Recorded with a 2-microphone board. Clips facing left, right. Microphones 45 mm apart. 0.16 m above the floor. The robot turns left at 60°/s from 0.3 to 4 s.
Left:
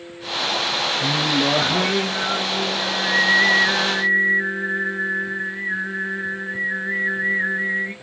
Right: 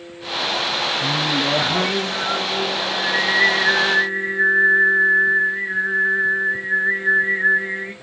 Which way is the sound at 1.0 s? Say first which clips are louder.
Left 2 dB; 55° left.